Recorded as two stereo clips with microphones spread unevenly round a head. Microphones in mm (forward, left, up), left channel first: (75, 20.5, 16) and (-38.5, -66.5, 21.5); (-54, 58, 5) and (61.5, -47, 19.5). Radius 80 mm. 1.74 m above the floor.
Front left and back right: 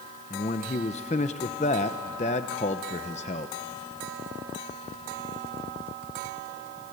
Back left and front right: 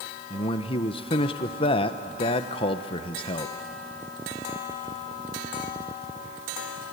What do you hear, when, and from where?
0.3 s a man speaking: 80° left, 1.0 m